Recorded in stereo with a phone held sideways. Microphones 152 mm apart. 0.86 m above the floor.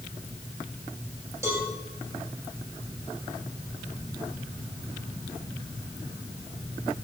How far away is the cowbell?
About 3.5 m.